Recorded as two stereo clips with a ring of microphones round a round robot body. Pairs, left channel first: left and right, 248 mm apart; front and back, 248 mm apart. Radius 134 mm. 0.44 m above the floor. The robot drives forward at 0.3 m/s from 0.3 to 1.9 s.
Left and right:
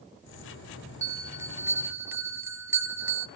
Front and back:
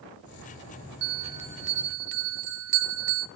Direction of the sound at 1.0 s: 165° right.